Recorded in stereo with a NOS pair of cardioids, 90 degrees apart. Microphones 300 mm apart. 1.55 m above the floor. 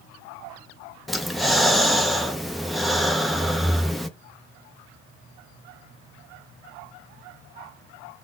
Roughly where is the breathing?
Ahead.